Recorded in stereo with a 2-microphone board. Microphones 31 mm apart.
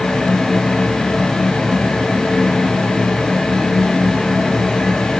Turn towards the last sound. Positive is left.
No sound to turn to.